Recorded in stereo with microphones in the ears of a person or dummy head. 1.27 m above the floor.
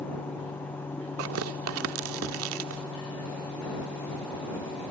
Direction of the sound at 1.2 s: 80° right.